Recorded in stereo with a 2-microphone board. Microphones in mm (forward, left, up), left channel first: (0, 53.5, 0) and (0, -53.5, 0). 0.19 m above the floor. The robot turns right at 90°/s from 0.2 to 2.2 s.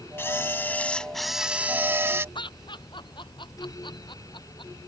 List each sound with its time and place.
0.2 s a camera shutter: 25° left (ahead or behind); by 2.2 s 25° right (ahead or behind)
2.4 s laughter: 45° left (ahead or behind)